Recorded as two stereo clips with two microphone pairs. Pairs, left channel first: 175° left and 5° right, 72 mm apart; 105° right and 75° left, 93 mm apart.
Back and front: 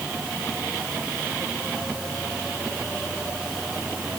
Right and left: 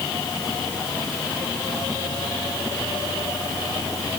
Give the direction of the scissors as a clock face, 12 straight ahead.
No scissors in this recording.